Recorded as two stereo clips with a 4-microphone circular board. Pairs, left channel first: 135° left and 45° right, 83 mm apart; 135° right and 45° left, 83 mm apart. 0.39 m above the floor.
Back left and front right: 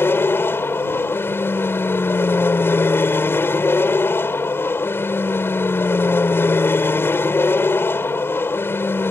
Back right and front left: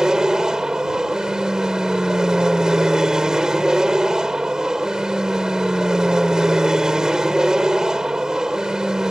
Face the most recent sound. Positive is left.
turn(degrees=120)